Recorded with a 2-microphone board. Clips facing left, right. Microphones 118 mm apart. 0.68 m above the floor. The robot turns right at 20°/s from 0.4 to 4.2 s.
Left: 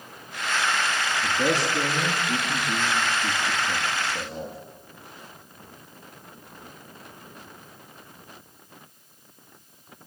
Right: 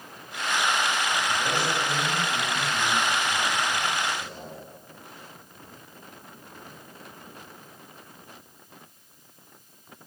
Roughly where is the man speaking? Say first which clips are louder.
Left 3 dB; left.